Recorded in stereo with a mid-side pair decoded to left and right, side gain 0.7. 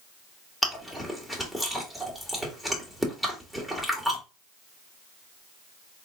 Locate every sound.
0.6 s chewing: 5° left, 1.9 m